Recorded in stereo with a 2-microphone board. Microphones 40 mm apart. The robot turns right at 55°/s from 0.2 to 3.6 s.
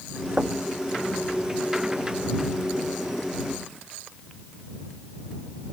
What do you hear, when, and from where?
0.4 s knocking: 30° right (ahead or behind); by 0.6 s 45° right (ahead or behind)